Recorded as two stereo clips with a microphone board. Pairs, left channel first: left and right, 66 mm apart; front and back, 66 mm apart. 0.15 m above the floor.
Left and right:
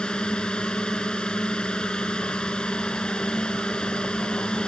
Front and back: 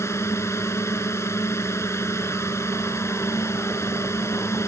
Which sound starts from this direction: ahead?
A drone, at 0.0 s.